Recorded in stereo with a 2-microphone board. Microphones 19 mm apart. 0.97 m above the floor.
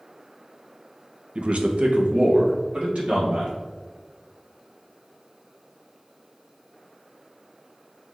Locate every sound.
1.4 s a man speaking: 55° right (ahead or behind), 0.5 m; by 3.5 s 75° right (ahead or behind), 2.5 m